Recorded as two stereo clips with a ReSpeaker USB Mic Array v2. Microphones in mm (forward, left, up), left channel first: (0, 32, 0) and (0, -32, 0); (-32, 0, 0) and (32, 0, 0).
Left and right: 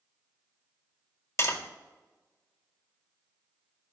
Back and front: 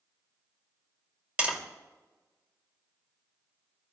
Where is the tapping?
60° left, 1.4 m.